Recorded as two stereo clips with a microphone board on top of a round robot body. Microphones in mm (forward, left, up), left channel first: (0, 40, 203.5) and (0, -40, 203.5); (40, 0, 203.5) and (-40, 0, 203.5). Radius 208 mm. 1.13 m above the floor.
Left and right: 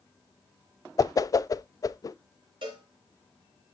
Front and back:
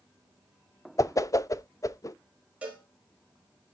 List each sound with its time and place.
1.0 s a whoosh: 45° left, 0.7 m
2.6 s a cowbell: 105° right, 4 m